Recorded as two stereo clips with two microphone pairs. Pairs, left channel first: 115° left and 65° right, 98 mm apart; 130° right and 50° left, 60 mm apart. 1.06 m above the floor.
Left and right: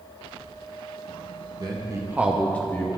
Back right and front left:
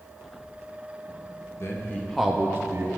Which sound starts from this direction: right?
A man speaking, at 1.6 s.